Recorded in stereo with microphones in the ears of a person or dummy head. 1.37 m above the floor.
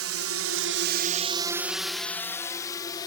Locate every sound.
0.0 s a drone: 65° right (ahead or behind); by 3.1 s 15° left (ahead or behind)